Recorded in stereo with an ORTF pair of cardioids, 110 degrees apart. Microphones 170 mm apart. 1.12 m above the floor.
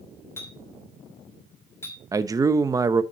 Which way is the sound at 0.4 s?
15° left.